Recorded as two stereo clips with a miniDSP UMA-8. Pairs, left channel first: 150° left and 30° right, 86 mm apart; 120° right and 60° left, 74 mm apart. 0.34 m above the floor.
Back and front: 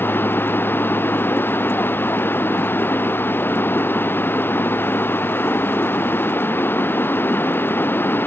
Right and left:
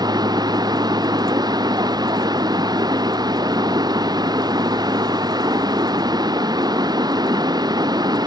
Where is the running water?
85° left.